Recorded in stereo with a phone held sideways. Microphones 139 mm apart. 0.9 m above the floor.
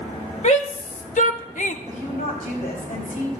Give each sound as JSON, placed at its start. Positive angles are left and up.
{"t": 0.4, "sound": "a shout", "side_deg": 60, "distance_m": 1.7}
{"t": 1.9, "sound": "a woman speaking", "side_deg": 65, "distance_m": 5.0}